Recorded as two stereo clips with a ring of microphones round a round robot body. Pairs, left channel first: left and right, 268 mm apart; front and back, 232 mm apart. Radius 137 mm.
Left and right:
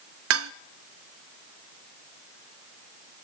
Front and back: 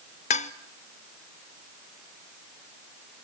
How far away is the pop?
I don't hear a pop.